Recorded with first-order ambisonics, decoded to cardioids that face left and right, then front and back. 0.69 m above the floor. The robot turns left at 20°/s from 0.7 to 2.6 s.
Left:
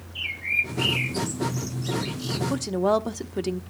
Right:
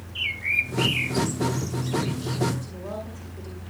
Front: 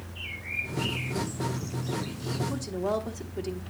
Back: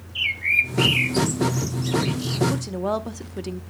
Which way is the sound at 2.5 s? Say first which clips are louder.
Left 12 dB, back 4 dB; 115° left.